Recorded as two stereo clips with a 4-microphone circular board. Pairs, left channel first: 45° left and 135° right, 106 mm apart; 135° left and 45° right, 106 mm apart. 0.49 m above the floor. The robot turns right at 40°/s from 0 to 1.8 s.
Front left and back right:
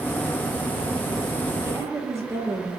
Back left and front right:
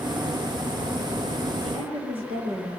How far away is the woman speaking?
About 9 m.